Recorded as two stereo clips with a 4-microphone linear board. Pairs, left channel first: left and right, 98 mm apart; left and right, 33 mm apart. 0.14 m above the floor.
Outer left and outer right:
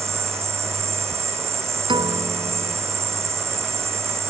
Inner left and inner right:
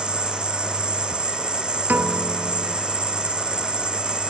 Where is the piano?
55° right (ahead or behind).